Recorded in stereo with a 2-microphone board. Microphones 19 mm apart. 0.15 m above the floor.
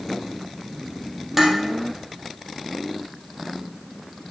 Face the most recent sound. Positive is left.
turn(degrees=-15)  # may be behind; listen again after turning